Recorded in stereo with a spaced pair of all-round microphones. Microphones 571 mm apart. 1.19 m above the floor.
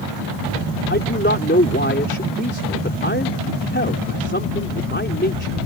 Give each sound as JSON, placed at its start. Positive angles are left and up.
{"t": 0.9, "sound": "a man speaking", "side_deg": 20}